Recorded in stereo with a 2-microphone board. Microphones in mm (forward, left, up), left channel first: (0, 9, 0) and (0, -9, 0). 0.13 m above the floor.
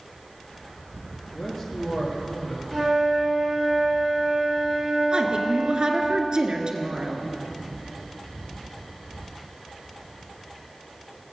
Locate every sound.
1.3 s a man speaking: 20° left (ahead or behind), 2.5 m; by 2.6 s 30° left (ahead or behind), 3.5 m
2.7 s a flute: 15° right (ahead or behind), 5 m
5.1 s a woman speaking: 45° right (ahead or behind), 1.5 m